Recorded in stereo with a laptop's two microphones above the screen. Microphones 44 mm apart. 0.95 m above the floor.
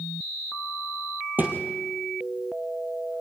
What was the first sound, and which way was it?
A thud, 40° right (ahead or behind).